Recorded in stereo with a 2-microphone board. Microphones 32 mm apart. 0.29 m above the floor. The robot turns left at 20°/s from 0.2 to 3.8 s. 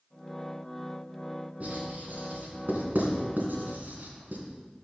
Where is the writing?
50° right (ahead or behind), 2.5 m; by 4.4 s 65° right (ahead or behind), 2.5 m.